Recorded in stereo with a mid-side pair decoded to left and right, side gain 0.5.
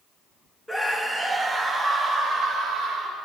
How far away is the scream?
About 1.9 m.